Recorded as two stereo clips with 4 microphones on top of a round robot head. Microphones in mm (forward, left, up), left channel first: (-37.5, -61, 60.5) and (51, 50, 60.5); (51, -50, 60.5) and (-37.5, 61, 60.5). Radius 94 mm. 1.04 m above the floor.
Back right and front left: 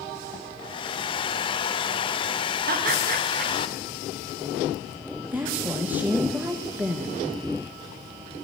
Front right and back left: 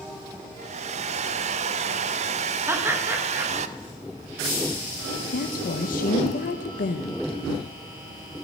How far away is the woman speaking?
About 0.8 m.